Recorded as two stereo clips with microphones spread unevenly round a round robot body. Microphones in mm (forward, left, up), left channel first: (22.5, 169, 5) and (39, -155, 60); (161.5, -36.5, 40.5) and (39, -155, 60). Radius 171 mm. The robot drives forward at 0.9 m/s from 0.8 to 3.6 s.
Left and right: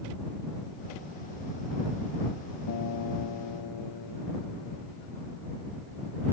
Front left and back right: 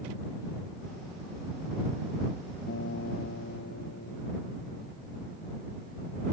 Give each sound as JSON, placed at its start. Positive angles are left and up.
{"t": 2.7, "sound": "a guitar", "azimuth_deg": 60}